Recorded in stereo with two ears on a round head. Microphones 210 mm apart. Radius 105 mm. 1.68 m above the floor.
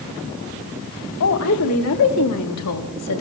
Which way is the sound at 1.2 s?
65° left (ahead or behind).